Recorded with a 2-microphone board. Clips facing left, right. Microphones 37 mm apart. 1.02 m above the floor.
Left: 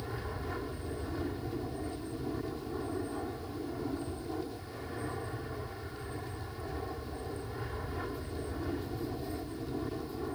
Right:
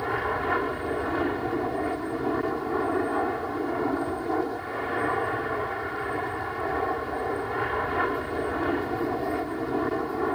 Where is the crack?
I don't hear a crack.